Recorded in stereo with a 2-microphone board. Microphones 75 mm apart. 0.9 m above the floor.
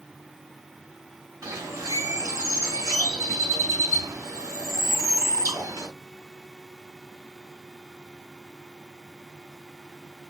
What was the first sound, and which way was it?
A bird, 45° right (ahead or behind).